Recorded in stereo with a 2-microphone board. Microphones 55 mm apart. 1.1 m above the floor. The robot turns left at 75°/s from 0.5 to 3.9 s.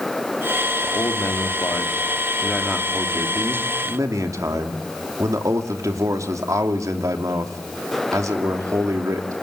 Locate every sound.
0.8 s a man speaking: 135° left, 3 m; by 9.3 s 100° right, 3 m